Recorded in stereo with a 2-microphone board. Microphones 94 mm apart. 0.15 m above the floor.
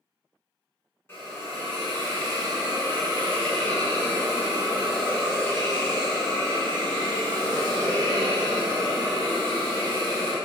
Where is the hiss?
25° left (ahead or behind), 1.7 m.